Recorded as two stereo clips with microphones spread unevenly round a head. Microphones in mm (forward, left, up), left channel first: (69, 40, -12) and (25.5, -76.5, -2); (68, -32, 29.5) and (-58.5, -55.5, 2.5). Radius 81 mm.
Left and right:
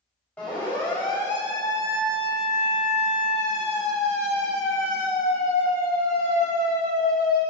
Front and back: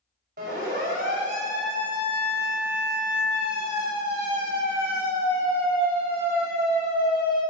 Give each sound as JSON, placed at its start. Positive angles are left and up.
{"t": 0.4, "sound": "a siren", "azimuth_deg": 150, "distance_m": 4.0}